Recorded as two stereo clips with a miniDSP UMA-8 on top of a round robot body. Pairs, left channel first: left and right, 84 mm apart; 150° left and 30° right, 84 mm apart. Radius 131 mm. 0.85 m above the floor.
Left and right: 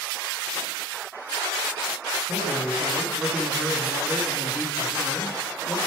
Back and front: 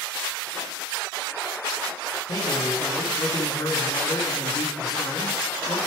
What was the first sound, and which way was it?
A man speaking, 170° right.